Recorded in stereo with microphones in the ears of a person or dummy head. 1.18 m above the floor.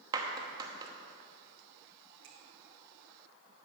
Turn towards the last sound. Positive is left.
turn(degrees=-85)